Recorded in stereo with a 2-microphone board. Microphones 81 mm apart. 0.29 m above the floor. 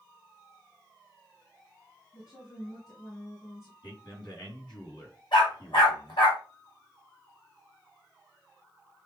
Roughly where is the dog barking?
Left.